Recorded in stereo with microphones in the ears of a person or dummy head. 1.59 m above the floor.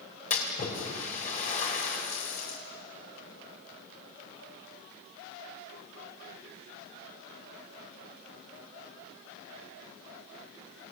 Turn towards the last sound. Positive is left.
turn(degrees=45)  # may be behind; listen again after turning